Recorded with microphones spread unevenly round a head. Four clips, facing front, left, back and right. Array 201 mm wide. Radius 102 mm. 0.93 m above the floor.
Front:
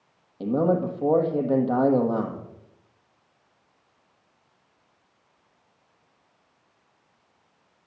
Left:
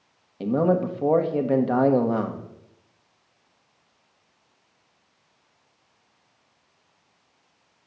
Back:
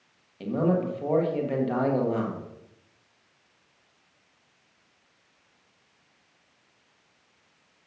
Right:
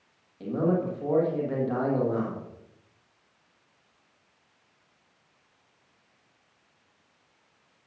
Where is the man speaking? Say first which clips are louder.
Left 5 dB, front 3 dB; 65° left, 1.4 m.